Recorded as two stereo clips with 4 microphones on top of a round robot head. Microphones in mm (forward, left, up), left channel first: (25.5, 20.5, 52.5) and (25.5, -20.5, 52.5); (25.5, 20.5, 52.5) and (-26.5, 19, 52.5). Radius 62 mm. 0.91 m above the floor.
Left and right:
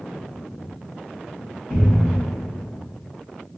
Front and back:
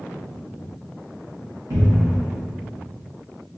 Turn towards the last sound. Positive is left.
turn(degrees=165)